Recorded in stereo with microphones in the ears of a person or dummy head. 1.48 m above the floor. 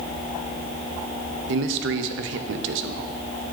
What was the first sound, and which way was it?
A man speaking, 65° right (ahead or behind).